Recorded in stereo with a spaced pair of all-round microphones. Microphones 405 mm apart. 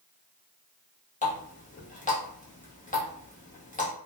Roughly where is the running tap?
Centre.